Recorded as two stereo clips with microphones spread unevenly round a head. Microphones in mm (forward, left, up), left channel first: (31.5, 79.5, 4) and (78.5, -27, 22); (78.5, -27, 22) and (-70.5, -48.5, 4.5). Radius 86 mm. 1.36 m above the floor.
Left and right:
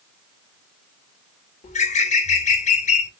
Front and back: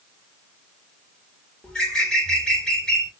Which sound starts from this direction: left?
A bird, at 1.6 s.